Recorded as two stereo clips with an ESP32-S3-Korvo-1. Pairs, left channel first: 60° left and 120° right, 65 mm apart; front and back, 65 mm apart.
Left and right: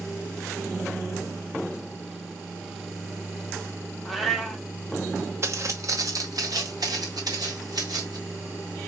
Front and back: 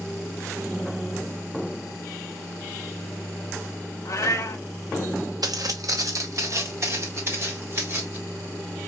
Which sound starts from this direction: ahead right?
A cat meowing, at 4.0 s.